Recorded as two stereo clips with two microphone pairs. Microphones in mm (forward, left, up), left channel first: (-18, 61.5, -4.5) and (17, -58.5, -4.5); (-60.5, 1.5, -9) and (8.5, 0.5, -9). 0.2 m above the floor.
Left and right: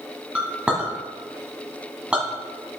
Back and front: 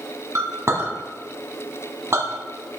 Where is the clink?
Straight ahead, 1.2 m.